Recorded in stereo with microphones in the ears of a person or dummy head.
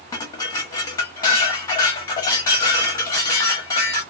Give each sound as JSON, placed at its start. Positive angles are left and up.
{"t": 0.1, "sound": "dishes clattering", "side_deg": 25, "distance_m": 1.0}